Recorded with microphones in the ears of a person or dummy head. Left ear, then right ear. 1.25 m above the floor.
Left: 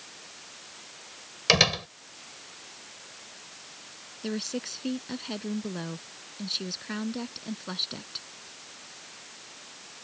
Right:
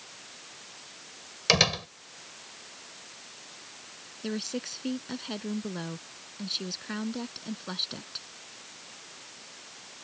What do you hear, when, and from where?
1.5 s a door slam: 5° left (ahead or behind)
4.2 s a woman speaking: centre (ahead or behind)